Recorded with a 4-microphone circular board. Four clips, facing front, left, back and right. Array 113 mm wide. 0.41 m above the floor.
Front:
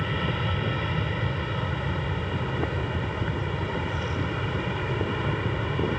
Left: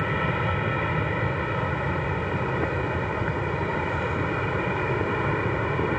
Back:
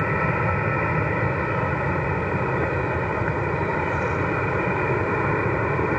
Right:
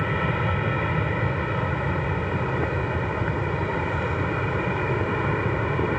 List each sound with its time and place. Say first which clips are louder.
0.0 s an aircraft: right 1 dB, back 6 dB; 175° right